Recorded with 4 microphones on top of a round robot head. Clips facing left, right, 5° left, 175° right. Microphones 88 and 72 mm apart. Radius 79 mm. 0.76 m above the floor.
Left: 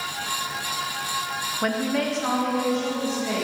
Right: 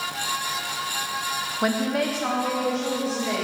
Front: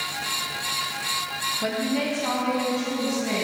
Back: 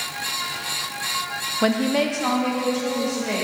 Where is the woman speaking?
170° right, 0.6 m; by 3.4 s 175° right, 3 m.